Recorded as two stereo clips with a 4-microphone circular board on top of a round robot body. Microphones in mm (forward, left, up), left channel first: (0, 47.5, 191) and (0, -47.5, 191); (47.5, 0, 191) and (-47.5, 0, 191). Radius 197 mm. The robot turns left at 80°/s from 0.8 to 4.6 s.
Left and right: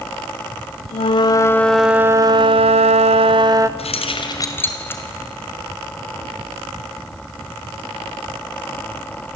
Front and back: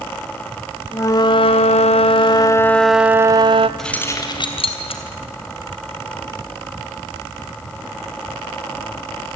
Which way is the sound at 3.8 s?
85° left.